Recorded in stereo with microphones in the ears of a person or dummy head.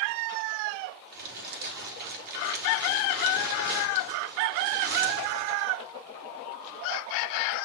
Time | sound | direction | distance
1.1 | crumpling | 50° right (ahead or behind) | 3 m